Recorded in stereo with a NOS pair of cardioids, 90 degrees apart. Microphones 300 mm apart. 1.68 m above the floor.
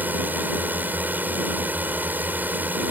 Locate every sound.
0.0 s a drone: 5° right